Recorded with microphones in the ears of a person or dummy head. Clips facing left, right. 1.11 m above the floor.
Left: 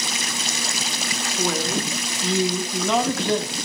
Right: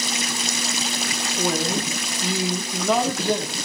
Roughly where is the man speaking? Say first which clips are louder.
Right 1 dB; centre.